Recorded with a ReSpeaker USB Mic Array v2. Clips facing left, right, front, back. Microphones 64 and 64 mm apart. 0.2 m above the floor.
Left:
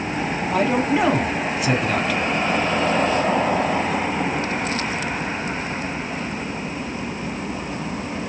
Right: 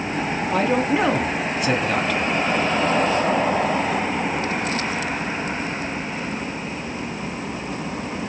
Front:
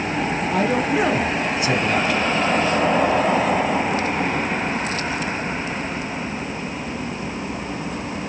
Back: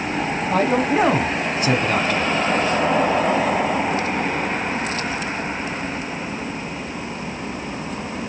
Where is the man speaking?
175° left, 1.3 m.